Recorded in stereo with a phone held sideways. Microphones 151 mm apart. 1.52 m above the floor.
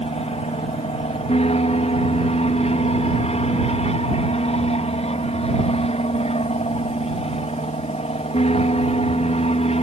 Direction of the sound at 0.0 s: 45° left (ahead or behind).